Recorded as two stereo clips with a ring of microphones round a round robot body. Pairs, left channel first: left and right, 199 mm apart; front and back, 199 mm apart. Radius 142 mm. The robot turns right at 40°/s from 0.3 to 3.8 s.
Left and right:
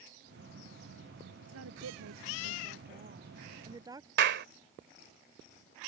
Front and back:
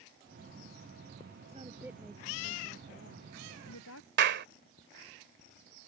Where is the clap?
135° right.